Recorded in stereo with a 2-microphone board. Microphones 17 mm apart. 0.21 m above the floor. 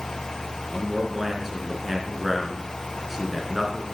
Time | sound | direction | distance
0.7 | a man speaking | 5° right (ahead or behind) | 2.5 m